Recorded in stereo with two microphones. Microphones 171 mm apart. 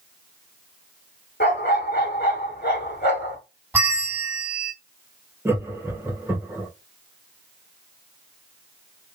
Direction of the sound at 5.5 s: 10° right (ahead or behind).